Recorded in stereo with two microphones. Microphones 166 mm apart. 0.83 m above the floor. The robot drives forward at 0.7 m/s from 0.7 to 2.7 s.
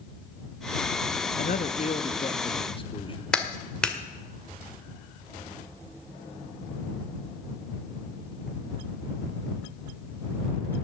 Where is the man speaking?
60° left (ahead or behind), 0.8 m; by 3.2 s 35° left (ahead or behind), 1.4 m.